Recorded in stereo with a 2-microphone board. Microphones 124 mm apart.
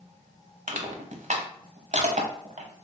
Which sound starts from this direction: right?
Crushing, at 0.7 s.